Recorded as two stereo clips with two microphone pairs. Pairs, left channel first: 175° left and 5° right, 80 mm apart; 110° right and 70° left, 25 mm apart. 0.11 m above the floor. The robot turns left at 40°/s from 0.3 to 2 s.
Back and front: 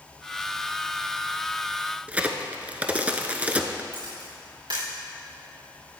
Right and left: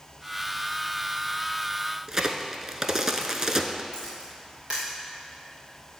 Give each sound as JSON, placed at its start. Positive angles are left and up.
{"t": 2.1, "sound": "a crack", "azimuth_deg": 40, "distance_m": 0.7}
{"t": 3.9, "sound": "a camera shutter", "azimuth_deg": 15, "distance_m": 4.0}